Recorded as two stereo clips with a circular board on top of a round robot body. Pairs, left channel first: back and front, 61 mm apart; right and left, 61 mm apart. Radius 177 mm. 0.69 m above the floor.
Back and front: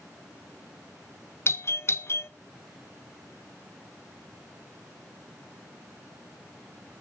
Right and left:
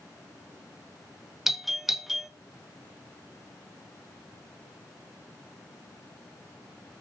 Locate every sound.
1.5 s a doorbell: 175° left, 1.3 m